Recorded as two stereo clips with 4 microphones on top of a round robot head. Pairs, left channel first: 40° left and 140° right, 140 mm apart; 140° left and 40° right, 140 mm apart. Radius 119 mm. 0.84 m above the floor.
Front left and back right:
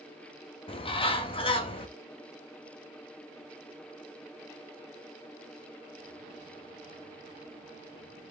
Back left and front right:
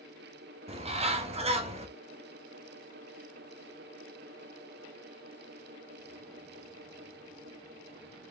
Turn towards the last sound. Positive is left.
turn(degrees=-5)